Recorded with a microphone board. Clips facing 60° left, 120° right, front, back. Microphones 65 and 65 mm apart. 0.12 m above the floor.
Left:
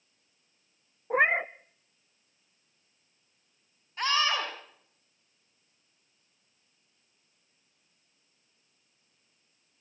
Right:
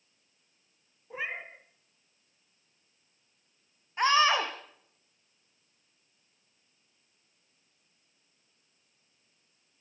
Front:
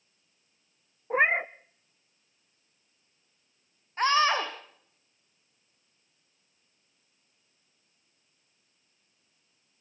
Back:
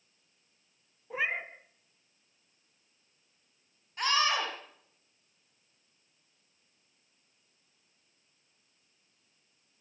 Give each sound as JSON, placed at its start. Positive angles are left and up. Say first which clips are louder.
{"t": 1.1, "sound": "a cat meowing", "louder": "left 13 dB, front 9 dB", "azimuth_deg": 40, "distance_m": 0.9}
{"t": 4.0, "sound": "a scream", "louder": "right 4 dB, front 5 dB", "azimuth_deg": -55, "distance_m": 6.0}